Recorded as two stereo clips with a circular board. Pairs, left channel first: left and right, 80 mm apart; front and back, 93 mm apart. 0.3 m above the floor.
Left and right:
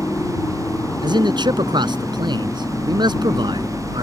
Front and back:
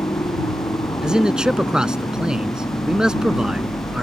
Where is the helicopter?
35° left.